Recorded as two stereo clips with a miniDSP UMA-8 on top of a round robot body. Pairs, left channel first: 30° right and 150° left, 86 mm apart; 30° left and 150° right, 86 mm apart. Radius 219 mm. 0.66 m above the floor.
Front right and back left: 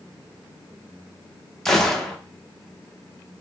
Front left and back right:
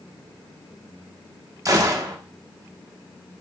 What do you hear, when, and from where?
1.6 s a gunshot: 115° right, 1.1 m